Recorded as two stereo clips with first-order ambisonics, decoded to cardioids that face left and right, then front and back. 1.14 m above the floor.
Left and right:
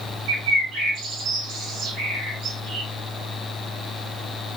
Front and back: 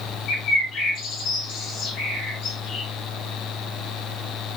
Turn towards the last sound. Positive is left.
turn(degrees=-50)